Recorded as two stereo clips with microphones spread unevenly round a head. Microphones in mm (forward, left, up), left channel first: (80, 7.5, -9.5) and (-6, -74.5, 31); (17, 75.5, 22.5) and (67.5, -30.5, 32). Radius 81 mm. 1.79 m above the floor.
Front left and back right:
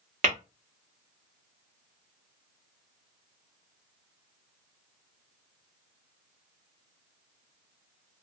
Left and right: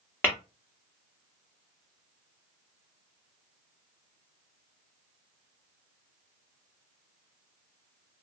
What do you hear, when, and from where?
0.2 s tapping: 165° right, 1.2 m